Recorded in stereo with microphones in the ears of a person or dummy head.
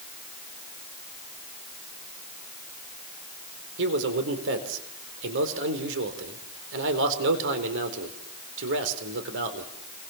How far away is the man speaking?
About 4 m.